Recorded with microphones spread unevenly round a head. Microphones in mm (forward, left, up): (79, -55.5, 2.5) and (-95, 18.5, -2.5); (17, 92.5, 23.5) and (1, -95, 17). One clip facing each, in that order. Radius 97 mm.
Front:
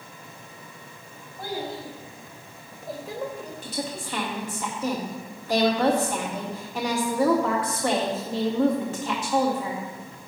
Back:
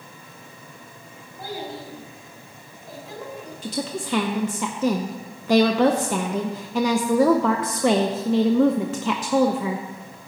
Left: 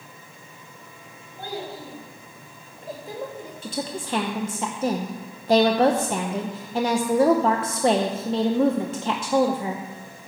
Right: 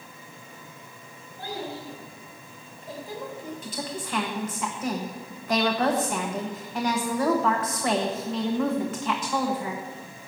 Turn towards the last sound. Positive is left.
turn(degrees=150)